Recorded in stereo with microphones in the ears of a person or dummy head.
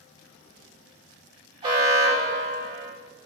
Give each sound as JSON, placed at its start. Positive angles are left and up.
{"t": 1.6, "sound": "an alarm", "side_deg": -35, "distance_m": 2.0}